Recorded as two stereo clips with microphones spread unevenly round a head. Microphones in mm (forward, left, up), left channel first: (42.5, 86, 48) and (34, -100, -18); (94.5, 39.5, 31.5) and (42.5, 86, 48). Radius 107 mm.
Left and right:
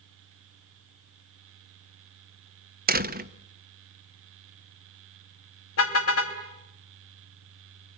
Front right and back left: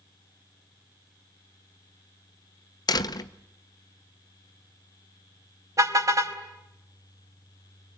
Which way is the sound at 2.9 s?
65° right.